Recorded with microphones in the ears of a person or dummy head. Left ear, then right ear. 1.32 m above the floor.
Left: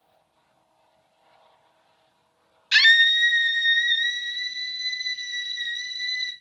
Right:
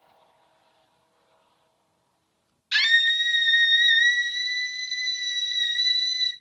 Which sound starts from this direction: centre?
A scream, at 2.7 s.